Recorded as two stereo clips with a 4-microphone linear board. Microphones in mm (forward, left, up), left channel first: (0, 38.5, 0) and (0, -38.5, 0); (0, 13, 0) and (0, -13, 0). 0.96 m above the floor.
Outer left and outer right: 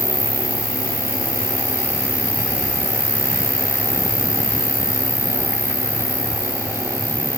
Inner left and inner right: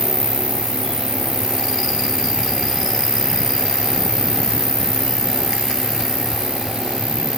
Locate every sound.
0.0 s an insect: 15° left (ahead or behind)